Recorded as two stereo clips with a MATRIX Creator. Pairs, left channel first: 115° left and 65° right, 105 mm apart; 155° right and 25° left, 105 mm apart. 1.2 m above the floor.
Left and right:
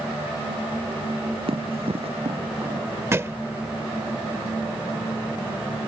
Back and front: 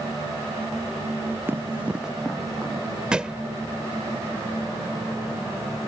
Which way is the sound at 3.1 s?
45° right.